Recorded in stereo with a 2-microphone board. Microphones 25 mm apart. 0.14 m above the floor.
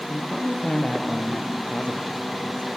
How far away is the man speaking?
About 3.5 m.